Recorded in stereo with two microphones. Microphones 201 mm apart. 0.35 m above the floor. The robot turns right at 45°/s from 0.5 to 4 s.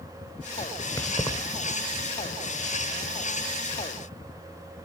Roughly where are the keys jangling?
Centre.